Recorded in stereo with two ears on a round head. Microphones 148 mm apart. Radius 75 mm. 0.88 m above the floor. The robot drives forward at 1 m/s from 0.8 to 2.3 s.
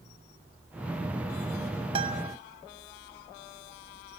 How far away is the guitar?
About 0.9 m.